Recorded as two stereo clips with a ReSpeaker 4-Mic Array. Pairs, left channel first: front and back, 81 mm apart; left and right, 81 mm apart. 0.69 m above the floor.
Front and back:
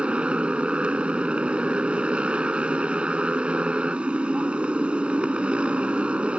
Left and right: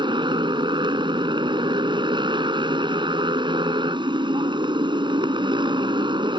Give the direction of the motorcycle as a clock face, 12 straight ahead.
3 o'clock.